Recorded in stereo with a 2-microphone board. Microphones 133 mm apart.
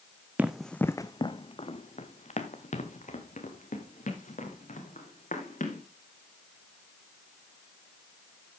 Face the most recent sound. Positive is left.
turn(degrees=85)